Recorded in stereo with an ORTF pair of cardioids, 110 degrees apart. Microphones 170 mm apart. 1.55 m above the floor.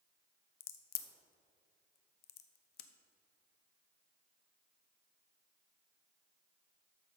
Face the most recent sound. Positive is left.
turn(degrees=70)